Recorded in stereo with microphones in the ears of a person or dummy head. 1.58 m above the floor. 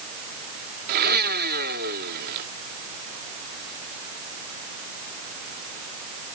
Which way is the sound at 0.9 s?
55° right (ahead or behind).